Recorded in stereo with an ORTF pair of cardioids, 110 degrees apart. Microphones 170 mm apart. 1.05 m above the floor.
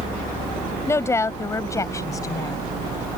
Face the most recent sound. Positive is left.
turn(degrees=20)